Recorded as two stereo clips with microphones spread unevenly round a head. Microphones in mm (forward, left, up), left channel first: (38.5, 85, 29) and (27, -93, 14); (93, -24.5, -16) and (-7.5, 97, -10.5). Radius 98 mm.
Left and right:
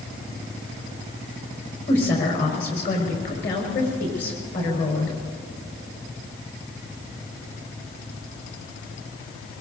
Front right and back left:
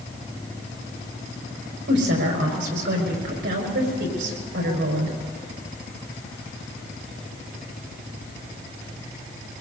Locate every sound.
1.9 s a woman speaking: 135° left, 5.5 m